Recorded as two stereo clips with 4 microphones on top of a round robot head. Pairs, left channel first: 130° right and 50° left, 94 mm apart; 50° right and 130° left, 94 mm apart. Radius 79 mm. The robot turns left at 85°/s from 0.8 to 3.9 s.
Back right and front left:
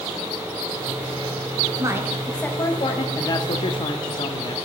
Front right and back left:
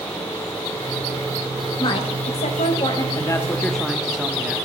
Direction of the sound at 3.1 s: 85° right.